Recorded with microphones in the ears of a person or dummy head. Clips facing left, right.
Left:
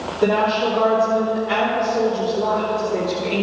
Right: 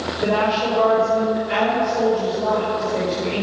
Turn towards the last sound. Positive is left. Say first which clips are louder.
# left 2 dB
turn(degrees=80)